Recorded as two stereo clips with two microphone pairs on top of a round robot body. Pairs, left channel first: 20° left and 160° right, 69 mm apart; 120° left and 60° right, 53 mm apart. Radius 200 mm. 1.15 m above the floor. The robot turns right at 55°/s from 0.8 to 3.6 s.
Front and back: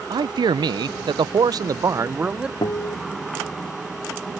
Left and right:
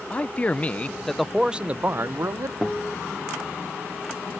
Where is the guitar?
35° left; by 3.0 s 50° left.